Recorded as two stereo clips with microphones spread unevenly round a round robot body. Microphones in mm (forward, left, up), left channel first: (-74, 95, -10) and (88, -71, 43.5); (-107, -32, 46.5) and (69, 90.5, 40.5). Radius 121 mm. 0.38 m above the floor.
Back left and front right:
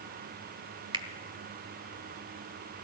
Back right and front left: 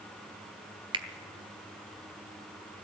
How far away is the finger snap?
About 1.1 m.